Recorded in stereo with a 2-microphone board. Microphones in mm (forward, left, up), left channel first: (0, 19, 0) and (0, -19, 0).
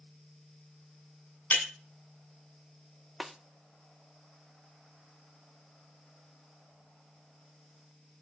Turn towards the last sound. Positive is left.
turn(degrees=0)  # may be behind; listen again after turning